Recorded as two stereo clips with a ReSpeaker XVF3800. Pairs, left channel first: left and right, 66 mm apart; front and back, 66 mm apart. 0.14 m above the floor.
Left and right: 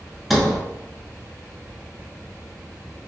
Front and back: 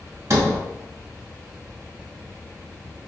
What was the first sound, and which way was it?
A sliding door, 175° right.